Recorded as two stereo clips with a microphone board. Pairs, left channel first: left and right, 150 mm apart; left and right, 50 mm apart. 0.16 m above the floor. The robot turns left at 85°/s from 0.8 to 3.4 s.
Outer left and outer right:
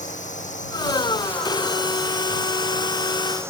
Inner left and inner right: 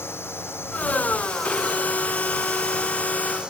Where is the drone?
55° left (ahead or behind); by 3.5 s 15° right (ahead or behind).